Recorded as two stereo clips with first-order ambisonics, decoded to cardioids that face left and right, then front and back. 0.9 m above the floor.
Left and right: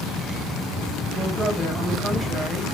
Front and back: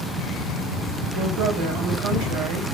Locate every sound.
1.1 s a woman speaking: 170° right, 3.5 m